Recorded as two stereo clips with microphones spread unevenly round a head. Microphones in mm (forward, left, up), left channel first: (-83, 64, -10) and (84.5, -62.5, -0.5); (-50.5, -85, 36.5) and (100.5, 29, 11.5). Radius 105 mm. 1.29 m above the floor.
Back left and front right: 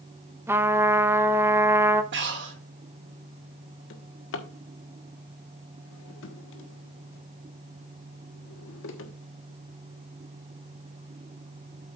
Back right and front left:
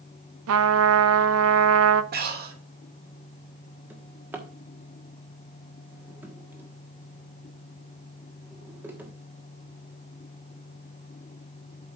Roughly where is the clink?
No clink in this recording.